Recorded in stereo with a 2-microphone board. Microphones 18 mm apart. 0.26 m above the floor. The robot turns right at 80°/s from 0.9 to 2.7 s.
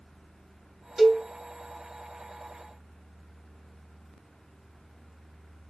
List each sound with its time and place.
1.0 s a cowbell: 25° right (ahead or behind), 1.8 m; by 1.2 s 10° right (ahead or behind), 1.8 m